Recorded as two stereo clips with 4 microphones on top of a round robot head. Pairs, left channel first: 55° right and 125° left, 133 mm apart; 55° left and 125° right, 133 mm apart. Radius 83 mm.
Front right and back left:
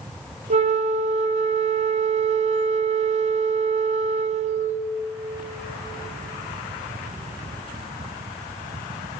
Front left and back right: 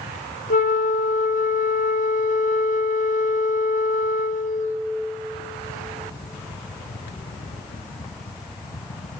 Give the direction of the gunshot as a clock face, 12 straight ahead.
I don't hear a gunshot.